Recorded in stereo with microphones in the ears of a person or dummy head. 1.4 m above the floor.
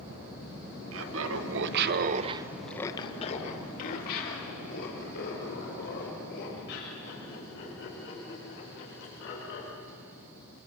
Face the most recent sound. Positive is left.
turn(degrees=70)  # may be behind; listen again after turning